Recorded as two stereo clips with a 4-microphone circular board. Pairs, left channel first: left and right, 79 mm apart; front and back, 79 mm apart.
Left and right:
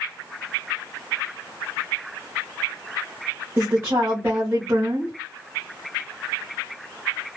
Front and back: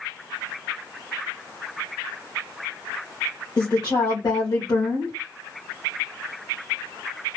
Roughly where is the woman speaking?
Ahead right.